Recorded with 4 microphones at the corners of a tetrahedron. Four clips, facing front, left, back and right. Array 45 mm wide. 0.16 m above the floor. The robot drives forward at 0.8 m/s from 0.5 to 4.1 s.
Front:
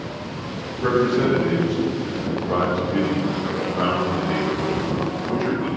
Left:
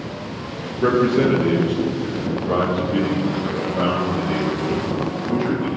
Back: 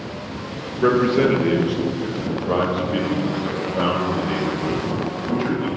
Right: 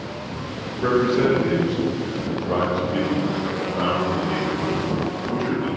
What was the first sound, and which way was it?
A man speaking, 155° left.